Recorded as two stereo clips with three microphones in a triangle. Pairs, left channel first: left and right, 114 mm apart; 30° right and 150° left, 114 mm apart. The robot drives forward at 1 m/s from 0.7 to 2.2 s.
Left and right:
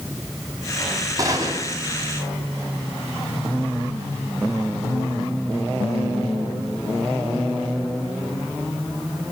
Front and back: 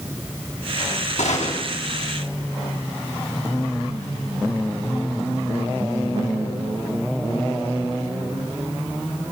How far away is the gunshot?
About 9 m.